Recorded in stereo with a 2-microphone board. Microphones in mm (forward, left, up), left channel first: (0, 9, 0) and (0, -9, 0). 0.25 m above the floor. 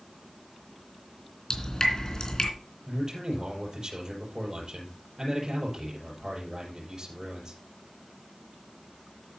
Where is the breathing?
I don't hear breathing.